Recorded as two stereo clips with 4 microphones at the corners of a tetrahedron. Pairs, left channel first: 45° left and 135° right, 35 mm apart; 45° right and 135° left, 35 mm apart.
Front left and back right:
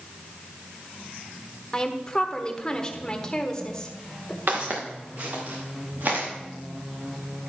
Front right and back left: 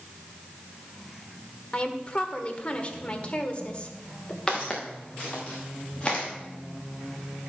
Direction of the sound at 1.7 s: 10° right.